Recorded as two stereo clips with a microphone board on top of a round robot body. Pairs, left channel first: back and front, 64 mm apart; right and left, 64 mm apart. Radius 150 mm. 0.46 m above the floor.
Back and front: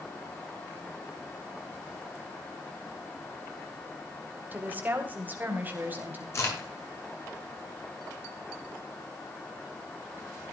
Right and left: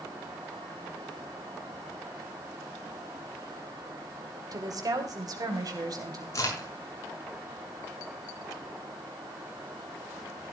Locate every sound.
4.5 s a woman speaking: 65° left, 2.5 m
6.3 s a crack: 135° right, 6.5 m